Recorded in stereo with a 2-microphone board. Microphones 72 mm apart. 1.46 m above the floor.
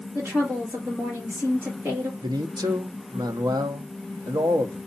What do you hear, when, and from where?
0.1 s a woman speaking: 35° right (ahead or behind), 2.5 m
2.2 s a man speaking: 70° right (ahead or behind), 0.7 m